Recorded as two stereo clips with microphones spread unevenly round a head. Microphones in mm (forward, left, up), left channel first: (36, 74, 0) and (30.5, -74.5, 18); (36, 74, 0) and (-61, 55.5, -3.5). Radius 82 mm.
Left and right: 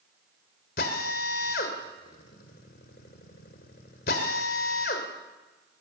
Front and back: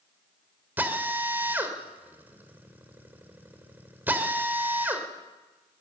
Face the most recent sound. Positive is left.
turn(degrees=120)